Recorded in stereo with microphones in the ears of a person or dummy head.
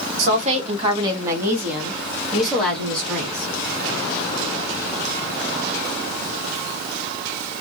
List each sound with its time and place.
0.2 s a woman speaking: 50° right (ahead or behind), 0.7 m; by 3.5 s 10° left (ahead or behind), 1.8 m